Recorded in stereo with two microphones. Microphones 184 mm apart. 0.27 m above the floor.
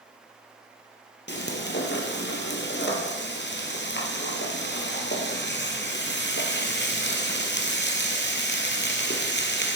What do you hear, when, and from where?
1.3 s frying: 65° left (ahead or behind), 3 m